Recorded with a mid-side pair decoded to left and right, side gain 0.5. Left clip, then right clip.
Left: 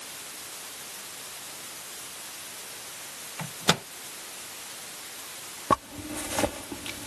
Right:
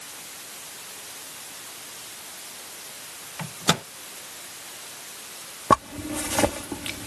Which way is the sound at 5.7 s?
30° right.